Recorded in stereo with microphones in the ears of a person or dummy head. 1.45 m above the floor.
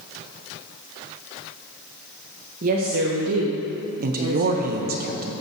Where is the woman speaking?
40° right (ahead or behind), 1.4 m; by 5.0 s 20° right (ahead or behind), 2.5 m.